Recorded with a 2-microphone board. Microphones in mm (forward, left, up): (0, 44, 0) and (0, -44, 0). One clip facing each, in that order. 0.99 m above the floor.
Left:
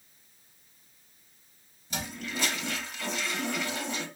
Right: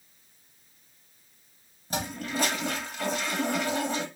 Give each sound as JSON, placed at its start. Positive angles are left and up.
{"t": 1.9, "sound": "a toilet flushing", "side_deg": -40, "distance_m": 1.3}